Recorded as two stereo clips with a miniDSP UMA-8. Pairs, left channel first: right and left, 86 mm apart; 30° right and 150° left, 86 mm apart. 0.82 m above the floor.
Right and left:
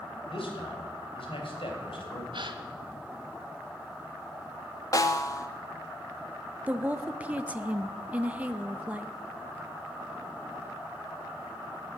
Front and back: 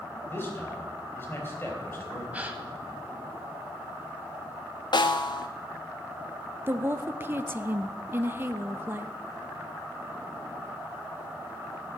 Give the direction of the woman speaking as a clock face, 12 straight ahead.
7 o'clock.